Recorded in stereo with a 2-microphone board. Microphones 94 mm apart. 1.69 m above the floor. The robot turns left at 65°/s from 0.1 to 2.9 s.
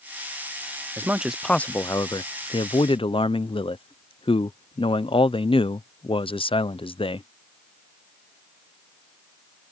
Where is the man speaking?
155° right; by 7.3 s 80° left.